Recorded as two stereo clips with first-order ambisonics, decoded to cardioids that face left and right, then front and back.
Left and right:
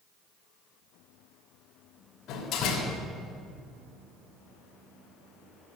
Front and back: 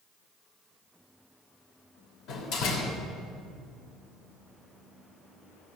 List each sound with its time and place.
2.3 s a door slam: 40° left, 3 m